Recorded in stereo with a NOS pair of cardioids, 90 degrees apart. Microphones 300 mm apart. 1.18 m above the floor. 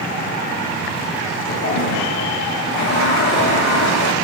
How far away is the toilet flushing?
About 4.5 m.